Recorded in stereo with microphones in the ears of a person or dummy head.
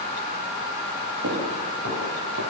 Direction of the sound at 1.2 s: 80° right.